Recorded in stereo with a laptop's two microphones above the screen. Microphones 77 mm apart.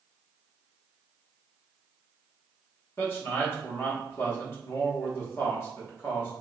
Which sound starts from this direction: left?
A man speaking, at 3.0 s.